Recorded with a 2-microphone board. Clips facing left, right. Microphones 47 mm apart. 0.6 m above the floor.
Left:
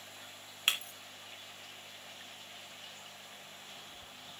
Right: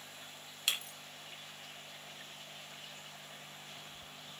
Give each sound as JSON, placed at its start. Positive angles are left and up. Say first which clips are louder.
{"t": 0.7, "sound": "breaking glass", "louder": "left 4 dB", "side_deg": 40, "distance_m": 2.0}